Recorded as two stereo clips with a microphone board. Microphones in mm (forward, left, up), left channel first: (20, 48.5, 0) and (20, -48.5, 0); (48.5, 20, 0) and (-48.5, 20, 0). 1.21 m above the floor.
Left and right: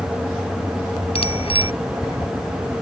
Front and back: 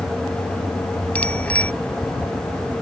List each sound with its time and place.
1.1 s a bicycle bell: 75° left